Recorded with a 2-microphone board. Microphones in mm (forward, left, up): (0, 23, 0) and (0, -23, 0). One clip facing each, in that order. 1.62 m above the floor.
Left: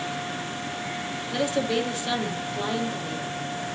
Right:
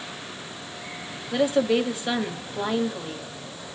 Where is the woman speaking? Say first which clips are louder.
Right 4 dB; 15° right (ahead or behind), 1.1 m.